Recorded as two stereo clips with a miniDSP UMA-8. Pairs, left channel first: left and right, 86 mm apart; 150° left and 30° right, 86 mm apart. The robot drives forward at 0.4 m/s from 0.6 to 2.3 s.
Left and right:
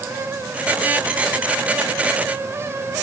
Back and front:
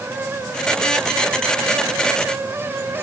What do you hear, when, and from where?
Only background noise.